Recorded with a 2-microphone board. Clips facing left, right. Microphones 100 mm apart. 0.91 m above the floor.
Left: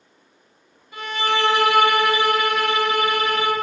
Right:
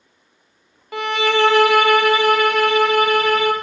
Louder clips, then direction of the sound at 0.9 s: Right 5 dB; 75° right (ahead or behind).